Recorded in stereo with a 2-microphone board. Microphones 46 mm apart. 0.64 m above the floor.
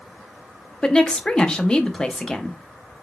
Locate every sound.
0.8 s a woman speaking: 20° left (ahead or behind), 0.6 m